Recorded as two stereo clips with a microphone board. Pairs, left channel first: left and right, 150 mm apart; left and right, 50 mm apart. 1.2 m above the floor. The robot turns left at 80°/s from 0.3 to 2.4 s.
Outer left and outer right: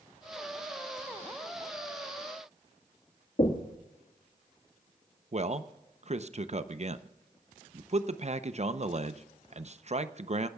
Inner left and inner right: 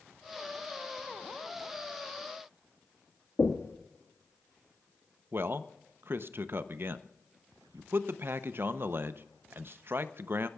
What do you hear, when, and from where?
3.4 s knocking: 65° left (ahead or behind), 1.7 m
5.3 s a man speaking: 45° right (ahead or behind), 0.7 m